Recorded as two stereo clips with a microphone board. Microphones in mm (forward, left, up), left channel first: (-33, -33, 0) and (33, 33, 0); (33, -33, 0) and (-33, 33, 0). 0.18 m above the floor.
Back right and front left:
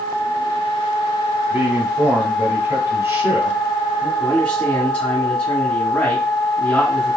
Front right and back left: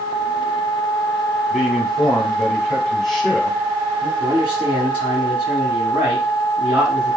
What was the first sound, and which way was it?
A man speaking, 45° left.